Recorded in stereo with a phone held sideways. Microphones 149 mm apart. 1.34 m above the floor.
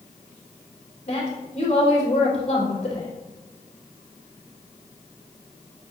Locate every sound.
1.1 s a woman speaking: 50° left (ahead or behind), 3.5 m